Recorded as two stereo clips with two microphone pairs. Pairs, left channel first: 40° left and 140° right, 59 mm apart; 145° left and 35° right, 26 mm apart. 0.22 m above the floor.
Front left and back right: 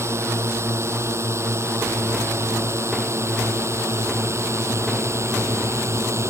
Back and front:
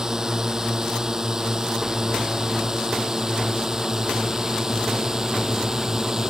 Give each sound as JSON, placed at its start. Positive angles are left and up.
{"t": 0.0, "sound": "a drone", "azimuth_deg": -100}